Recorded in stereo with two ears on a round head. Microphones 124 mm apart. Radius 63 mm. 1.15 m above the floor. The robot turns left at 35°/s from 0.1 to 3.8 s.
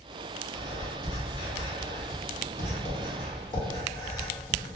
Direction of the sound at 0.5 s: 25° left (ahead or behind).